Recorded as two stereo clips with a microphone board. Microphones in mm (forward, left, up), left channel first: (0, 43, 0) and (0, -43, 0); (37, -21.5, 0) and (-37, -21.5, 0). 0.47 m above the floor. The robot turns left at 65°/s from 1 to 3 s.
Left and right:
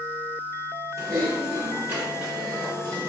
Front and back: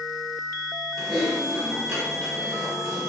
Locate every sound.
1.0 s typing on a keyboard: 90° right, 1.0 m; by 3.1 s 140° left, 1.0 m